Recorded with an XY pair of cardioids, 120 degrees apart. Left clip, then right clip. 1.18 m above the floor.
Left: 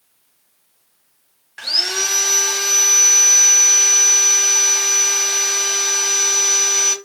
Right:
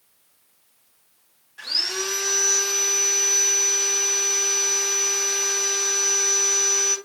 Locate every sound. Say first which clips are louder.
1.6 s sawing: left 6 dB; 65° left, 0.7 m